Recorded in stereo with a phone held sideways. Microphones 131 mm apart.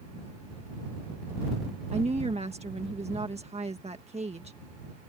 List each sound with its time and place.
1.9 s a woman speaking: 50° right (ahead or behind)